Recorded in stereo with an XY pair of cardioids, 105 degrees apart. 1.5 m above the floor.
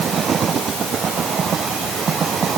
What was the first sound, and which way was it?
Only background noise.